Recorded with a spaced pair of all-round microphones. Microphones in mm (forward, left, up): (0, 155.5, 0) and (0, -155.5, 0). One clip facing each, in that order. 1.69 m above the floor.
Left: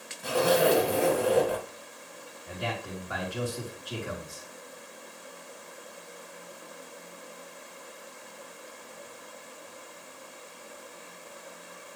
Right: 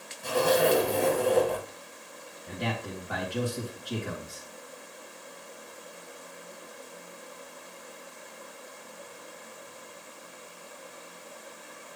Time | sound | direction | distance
0.2 | a zipper | 10° left (ahead or behind) | 2 m
2.5 | a man speaking | 70° right (ahead or behind) | 3 m